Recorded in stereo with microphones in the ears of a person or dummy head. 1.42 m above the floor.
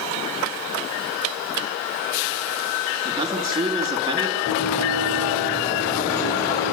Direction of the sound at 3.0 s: 30° right (ahead or behind).